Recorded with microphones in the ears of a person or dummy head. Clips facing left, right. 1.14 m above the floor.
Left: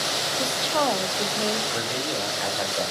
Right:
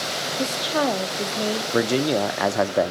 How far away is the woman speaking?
About 0.5 m.